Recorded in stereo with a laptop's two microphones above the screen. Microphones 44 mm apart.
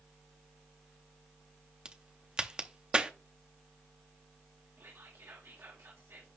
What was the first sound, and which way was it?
A crack, 25° right (ahead or behind).